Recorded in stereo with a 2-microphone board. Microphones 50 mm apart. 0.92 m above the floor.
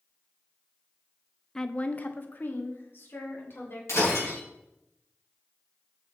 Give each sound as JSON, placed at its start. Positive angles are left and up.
{"t": 1.6, "sound": "a woman speaking", "side_deg": 10, "distance_m": 0.6}
{"t": 3.9, "sound": "breaking glass", "side_deg": 70, "distance_m": 5.0}